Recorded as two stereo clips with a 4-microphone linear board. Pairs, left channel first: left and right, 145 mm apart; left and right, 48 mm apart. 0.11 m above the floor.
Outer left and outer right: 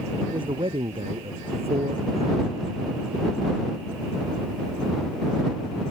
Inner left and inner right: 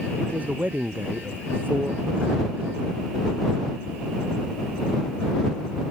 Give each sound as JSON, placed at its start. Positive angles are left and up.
{"t": 0.2, "sound": "a man speaking", "side_deg": -35}